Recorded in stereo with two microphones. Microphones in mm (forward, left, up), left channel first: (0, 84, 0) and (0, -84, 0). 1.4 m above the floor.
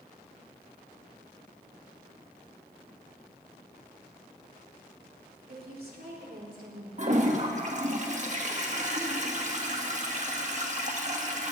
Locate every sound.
5.5 s a woman speaking: 65° right (ahead or behind), 3 m; by 6.9 s 60° right (ahead or behind), 4 m
7.0 s a toilet flushing: 45° right (ahead or behind), 1.5 m